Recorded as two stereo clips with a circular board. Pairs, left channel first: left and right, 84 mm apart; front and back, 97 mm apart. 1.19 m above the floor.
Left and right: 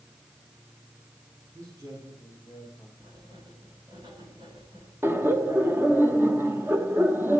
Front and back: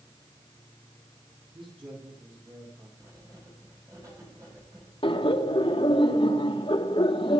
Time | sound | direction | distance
1.5 | a man speaking | 145° right | 9 m
3.0 | writing | 125° right | 10 m
5.0 | laughter | 25° right | 1.6 m